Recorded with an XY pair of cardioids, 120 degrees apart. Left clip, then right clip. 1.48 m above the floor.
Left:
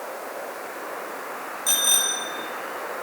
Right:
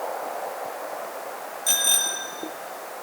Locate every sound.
1.7 s a bicycle bell: straight ahead, 3 m